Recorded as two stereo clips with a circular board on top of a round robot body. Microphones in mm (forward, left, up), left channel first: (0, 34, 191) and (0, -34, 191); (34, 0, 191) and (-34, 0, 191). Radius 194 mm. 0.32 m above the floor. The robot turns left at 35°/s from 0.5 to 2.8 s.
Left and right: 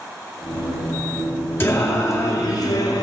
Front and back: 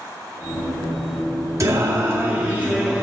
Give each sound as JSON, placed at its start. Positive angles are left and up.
{"t": 1.6, "sound": "singing", "azimuth_deg": 145, "distance_m": 2.0}